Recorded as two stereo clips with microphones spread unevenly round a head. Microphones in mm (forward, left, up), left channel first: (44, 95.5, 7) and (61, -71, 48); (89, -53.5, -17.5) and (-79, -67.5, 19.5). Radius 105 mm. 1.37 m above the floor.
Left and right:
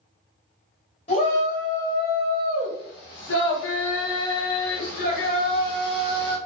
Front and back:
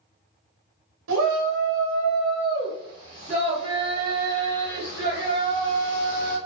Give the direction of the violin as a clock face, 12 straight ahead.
No violin in this recording.